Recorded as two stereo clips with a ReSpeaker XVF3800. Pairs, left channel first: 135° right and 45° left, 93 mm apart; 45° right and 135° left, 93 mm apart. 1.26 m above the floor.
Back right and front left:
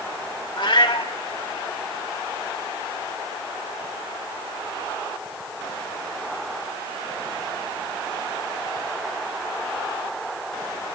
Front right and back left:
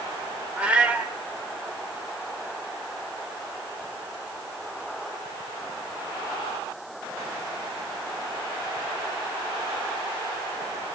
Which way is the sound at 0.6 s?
150° right.